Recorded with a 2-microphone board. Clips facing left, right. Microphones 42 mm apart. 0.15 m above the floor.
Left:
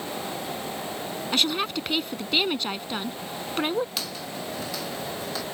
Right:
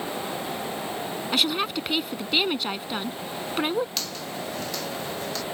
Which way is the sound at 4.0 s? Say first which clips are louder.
Right 1 dB; 5° left (ahead or behind).